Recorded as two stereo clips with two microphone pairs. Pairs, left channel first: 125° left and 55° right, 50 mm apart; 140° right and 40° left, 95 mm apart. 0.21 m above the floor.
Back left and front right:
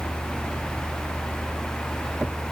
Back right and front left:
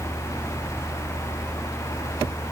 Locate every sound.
Only background noise.